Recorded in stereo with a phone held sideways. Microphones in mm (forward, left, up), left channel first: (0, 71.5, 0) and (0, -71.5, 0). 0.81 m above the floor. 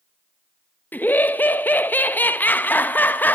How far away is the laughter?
About 0.6 m.